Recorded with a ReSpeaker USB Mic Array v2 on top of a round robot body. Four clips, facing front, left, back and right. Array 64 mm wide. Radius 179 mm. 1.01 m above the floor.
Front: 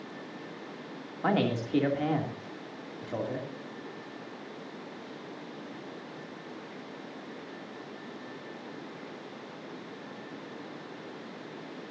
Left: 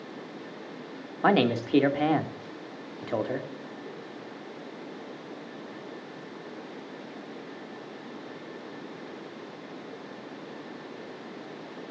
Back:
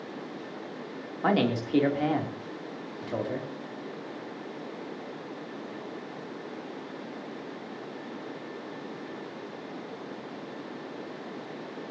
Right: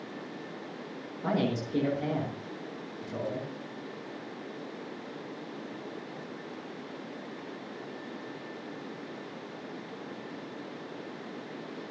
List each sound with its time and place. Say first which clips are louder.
1.2 s a man speaking: left 7 dB, back 2 dB; 95° left, 3 m